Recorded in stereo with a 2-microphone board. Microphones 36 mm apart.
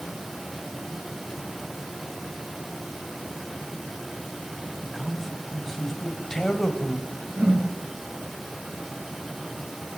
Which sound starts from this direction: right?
A whoosh, at 7.4 s.